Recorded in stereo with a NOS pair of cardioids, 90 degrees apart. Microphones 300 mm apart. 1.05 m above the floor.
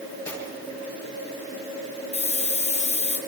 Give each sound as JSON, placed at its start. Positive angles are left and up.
{"t": 0.2, "sound": "cutlery clinking", "azimuth_deg": 5, "distance_m": 10.0}
{"t": 2.1, "sound": "a hiss", "azimuth_deg": 20, "distance_m": 4.0}